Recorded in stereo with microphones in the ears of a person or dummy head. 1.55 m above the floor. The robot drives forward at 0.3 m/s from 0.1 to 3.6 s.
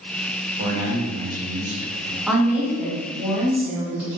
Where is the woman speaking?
5° right (ahead or behind), 0.6 m.